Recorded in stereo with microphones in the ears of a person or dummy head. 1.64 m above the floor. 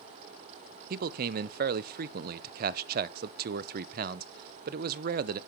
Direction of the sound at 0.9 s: 55° right (ahead or behind).